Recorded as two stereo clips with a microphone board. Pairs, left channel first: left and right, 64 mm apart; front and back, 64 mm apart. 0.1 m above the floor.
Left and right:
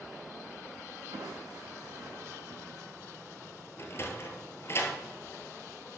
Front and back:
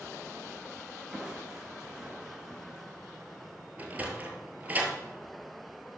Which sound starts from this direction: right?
Crushing, at 1.1 s.